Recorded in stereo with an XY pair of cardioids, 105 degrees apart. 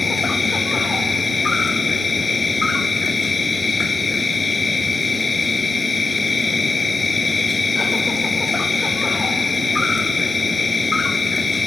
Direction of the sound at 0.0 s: 25° left.